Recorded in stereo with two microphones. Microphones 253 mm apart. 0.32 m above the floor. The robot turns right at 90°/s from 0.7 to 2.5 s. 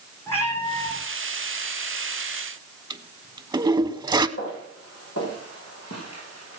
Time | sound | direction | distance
0.3 | a cat meowing | 10° left (ahead or behind) | 4.5 m
2.9 | a toilet flushing | 15° right (ahead or behind) | 0.5 m
4.4 | footsteps | 60° left (ahead or behind) | 6.5 m